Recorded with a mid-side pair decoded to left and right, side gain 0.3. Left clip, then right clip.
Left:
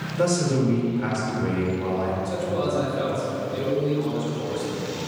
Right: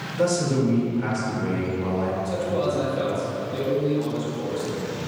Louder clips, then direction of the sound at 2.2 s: Right 1 dB; 10° left.